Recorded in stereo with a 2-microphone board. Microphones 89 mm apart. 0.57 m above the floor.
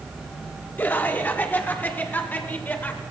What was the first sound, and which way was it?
Laughter, 20° left (ahead or behind).